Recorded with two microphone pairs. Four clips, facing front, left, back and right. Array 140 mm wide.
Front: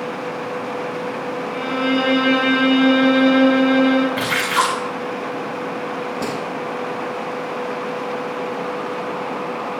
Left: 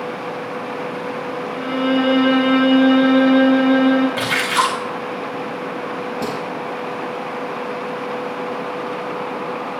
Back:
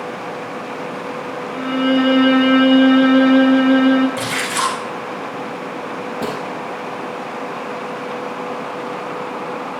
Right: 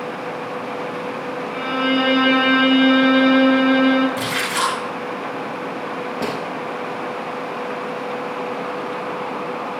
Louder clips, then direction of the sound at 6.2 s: Right 1 dB, back 1 dB; 95° right.